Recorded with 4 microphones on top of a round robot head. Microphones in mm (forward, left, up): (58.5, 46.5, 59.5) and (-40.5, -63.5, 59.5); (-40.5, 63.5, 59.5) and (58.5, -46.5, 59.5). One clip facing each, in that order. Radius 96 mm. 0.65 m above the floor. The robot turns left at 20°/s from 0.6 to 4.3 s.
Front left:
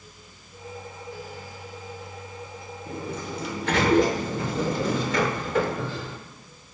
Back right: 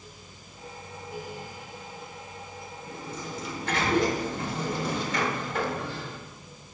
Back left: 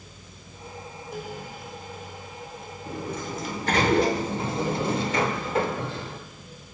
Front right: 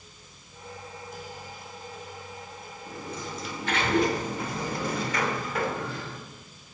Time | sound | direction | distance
2.9 | a sliding door | 95° left | 0.6 m